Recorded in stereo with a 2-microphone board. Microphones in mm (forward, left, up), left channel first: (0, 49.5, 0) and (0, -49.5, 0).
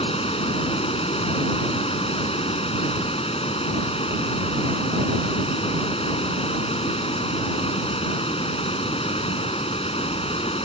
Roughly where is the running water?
Left.